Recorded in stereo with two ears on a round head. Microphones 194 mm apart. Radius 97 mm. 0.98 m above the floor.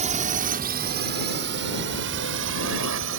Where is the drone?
35° right (ahead or behind); by 3.2 s 65° right (ahead or behind).